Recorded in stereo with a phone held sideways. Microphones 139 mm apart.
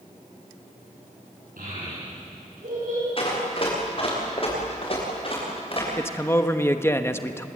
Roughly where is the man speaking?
Centre.